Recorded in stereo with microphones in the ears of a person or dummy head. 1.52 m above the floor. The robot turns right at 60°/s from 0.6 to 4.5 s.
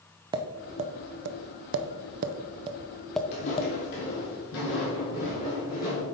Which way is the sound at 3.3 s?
40° left (ahead or behind).